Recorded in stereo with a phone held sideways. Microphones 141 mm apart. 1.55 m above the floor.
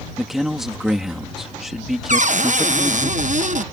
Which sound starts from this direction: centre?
A man speaking, at 0.2 s.